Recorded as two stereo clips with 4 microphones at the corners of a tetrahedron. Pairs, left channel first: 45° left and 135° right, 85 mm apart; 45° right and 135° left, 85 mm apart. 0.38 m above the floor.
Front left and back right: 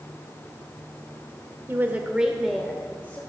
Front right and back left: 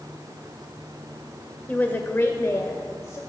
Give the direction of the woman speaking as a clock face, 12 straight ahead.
3 o'clock.